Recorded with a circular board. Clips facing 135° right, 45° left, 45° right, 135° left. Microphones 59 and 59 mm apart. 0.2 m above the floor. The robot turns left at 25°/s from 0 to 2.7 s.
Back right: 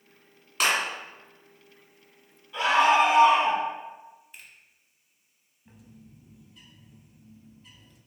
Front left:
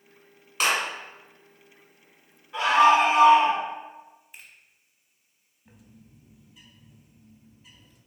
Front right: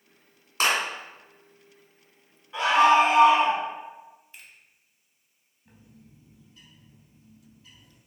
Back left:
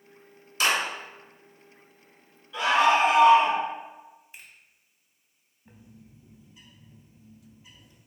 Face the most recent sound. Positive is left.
turn(degrees=115)